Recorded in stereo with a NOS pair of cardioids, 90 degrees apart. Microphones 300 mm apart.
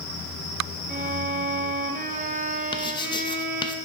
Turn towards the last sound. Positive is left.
turn(degrees=15)